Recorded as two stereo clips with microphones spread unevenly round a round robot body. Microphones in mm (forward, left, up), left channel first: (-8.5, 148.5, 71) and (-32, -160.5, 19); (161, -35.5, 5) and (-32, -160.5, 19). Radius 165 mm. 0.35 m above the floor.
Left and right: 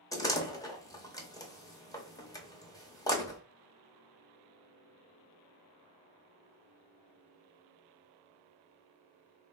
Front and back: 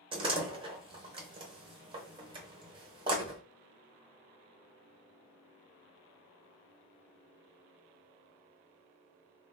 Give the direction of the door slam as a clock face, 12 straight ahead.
6 o'clock.